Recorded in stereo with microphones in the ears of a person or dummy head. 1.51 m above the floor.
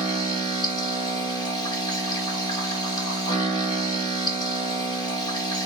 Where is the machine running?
25° left (ahead or behind), 2 m.